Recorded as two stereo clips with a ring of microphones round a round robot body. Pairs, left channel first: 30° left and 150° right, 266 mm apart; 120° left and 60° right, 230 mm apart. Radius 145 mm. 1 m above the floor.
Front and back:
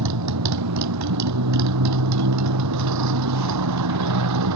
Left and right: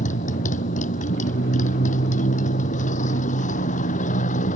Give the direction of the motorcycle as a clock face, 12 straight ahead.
6 o'clock.